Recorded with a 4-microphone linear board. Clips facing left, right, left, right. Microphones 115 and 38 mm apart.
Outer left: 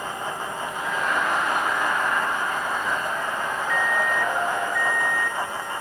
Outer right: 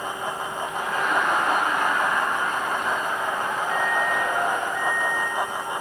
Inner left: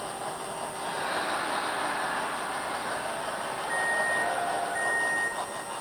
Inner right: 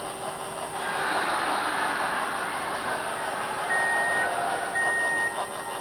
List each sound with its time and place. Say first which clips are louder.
0.7 s laughter: outer right 2 dB, inner right 5 dB; 80° right, 5 m
3.7 s a microwave: outer left 1 dB, inner right 2 dB; 35° right (ahead or behind), 1.4 m